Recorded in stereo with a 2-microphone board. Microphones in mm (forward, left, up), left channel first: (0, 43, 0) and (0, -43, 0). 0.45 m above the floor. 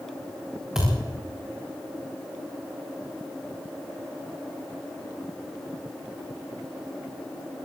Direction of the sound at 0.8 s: 10° right (ahead or behind).